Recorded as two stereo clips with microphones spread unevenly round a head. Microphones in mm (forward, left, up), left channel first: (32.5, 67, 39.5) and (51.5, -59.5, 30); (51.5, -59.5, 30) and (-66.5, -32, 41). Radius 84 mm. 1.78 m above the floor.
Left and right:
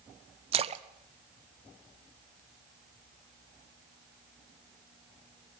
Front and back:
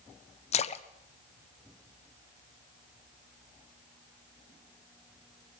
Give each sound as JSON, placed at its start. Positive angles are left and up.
{"t": 0.5, "sound": "a splash", "azimuth_deg": -40, "distance_m": 0.7}